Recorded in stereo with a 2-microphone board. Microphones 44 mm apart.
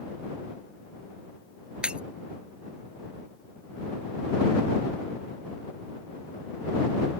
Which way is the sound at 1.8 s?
25° right (ahead or behind).